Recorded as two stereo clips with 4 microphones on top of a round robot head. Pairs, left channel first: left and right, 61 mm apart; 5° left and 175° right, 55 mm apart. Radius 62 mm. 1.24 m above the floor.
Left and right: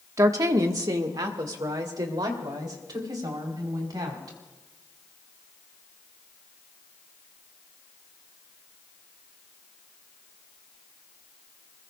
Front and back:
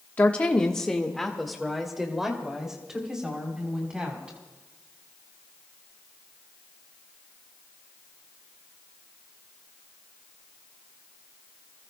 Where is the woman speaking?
60° right, 1.2 m; by 4.4 s 100° right, 4 m.